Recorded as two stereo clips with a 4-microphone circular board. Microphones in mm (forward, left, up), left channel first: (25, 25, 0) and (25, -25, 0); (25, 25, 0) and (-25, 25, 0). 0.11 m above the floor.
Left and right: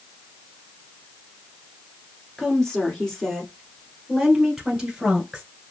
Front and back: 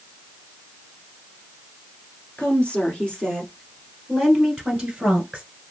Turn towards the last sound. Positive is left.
turn(degrees=-140)